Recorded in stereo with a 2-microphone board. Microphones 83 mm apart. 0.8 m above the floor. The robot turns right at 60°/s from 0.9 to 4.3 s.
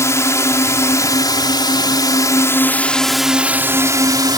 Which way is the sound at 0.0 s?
45° left.